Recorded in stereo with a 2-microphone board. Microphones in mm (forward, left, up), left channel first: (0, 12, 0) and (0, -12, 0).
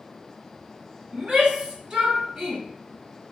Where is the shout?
50° right (ahead or behind), 1.8 m; by 2.6 s 45° right (ahead or behind), 2 m.